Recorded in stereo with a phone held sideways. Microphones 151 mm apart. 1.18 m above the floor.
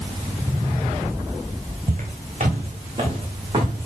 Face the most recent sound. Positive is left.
turn(degrees=-30)  # may be behind; listen again after turning